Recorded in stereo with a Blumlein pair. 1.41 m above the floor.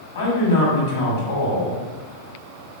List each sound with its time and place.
0.1 s a man speaking: 55° left, 1.7 m